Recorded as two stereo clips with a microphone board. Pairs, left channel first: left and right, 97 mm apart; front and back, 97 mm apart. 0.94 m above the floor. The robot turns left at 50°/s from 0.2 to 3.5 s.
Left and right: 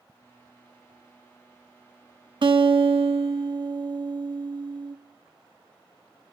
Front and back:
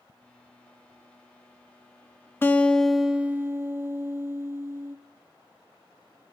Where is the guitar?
65° right, 0.7 m; by 5.0 s 120° right, 0.7 m.